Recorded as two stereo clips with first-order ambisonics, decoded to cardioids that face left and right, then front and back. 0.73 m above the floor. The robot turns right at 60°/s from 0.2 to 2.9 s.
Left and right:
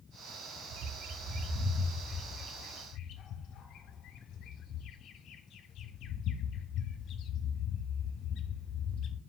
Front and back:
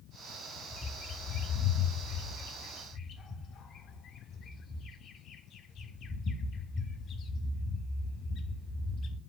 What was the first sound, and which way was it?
A bird, 80° right.